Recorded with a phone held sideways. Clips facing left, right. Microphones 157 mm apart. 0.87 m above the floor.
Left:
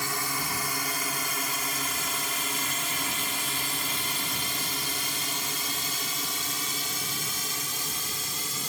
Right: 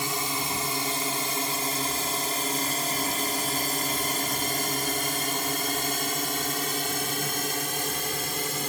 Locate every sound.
0.0 s a drone: 20° right (ahead or behind); by 8.7 s 70° right (ahead or behind)